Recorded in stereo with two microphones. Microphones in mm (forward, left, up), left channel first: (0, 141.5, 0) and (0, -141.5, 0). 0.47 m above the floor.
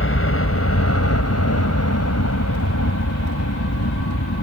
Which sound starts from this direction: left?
A helicopter, at 0.0 s.